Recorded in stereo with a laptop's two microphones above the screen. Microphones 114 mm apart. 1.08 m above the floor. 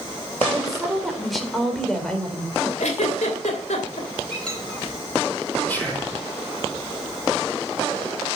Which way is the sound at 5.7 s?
15° left (ahead or behind).